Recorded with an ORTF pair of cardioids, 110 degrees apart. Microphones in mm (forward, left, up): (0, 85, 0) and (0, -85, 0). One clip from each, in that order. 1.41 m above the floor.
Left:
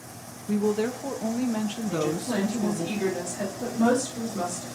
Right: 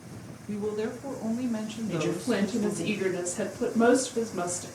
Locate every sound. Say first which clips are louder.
0.5 s a woman speaking: left 5 dB; 25° left, 0.7 m
1.9 s a woman speaking: even; 40° right, 2 m